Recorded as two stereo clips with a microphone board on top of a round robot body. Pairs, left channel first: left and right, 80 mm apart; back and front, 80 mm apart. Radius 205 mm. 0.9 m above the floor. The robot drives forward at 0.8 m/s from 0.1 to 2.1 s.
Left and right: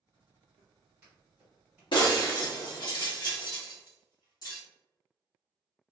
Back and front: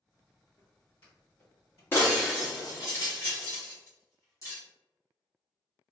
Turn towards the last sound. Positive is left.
turn(degrees=125)